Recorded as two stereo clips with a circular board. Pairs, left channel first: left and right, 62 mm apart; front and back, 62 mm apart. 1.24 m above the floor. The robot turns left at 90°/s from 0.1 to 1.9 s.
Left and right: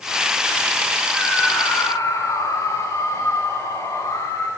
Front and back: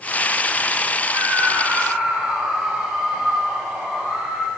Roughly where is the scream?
Behind.